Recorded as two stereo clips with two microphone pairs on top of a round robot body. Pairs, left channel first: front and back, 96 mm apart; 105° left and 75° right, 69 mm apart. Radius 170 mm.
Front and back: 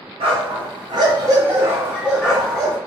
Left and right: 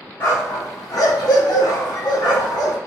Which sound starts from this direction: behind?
A dog barking, at 0.2 s.